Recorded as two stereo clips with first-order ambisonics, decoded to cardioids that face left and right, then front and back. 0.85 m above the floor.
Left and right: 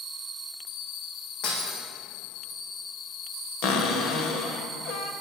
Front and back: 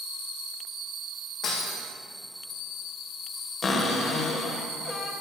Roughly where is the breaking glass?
Ahead left.